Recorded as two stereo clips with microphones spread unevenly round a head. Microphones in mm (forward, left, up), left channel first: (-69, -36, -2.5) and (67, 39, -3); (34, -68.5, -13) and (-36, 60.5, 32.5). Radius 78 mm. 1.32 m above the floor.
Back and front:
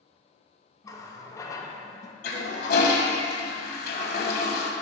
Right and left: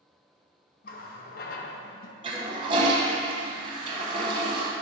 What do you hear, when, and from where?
0.8 s a running tap: 90° right, 0.6 m
2.2 s a toilet flushing: straight behind, 0.9 m